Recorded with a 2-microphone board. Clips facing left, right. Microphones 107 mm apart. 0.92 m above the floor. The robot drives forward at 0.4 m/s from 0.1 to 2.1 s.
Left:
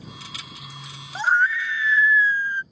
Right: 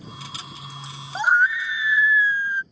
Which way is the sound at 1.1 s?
15° right (ahead or behind).